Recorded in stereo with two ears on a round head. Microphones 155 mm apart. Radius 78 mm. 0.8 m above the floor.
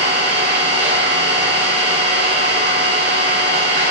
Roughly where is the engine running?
Right.